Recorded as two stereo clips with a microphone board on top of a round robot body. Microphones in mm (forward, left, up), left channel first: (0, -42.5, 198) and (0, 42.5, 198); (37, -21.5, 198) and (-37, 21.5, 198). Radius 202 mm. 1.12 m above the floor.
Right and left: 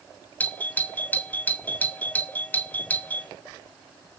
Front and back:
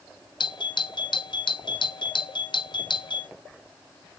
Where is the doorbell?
25° right, 1.5 m.